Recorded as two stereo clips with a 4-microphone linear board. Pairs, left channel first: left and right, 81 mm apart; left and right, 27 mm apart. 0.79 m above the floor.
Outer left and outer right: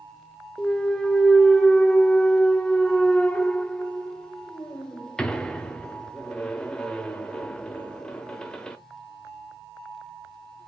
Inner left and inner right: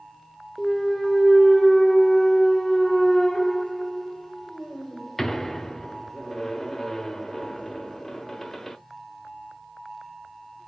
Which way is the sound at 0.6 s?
10° left (ahead or behind).